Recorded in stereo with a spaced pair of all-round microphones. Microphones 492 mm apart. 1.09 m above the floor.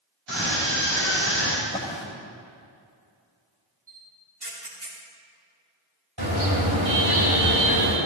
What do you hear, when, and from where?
0.3 s a scream: 60° right (ahead or behind), 6 m; by 1.5 s 70° right (ahead or behind), 7 m
1.6 s a drawer: 10° left (ahead or behind), 2.5 m
3.9 s a camera shutter: 50° right (ahead or behind), 3 m
6.2 s a car horn: 50° right (ahead or behind), 3 m